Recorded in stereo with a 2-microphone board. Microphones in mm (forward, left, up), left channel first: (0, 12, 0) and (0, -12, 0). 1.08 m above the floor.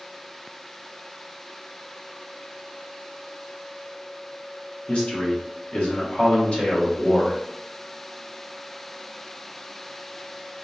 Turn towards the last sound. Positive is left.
turn(degrees=50)  # may be behind; listen again after turning